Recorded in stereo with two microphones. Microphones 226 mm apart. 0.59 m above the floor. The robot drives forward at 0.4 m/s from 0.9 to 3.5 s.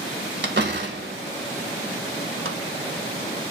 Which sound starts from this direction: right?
A door slam, at 0.4 s.